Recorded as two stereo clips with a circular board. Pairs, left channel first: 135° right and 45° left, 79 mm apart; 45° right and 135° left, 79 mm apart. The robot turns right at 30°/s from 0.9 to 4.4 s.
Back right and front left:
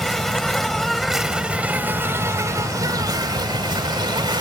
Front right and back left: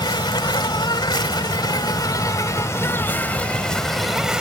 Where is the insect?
50° right; by 4.4 s 55° left.